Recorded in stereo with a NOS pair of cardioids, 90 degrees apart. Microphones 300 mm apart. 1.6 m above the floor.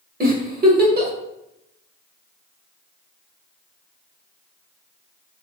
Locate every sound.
0.2 s a giggle: 30° right, 0.8 m